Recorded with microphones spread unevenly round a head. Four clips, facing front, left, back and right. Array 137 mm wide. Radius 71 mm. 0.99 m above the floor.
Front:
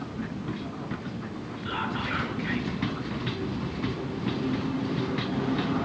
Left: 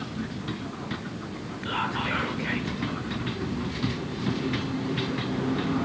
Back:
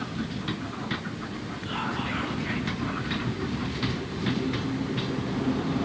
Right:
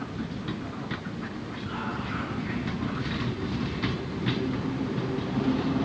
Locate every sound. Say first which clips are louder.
1.6 s whispering: left 5 dB, even; 70° left, 3.5 m